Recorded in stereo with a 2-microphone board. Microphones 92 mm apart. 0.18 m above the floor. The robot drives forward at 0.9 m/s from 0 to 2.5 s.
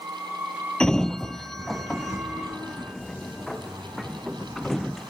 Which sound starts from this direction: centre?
A sliding door, at 0.8 s.